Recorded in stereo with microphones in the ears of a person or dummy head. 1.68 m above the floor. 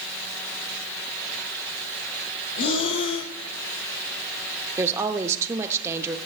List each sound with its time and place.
2.6 s breathing: 70° left (ahead or behind), 0.9 m
4.8 s a woman speaking: 10° right (ahead or behind), 0.6 m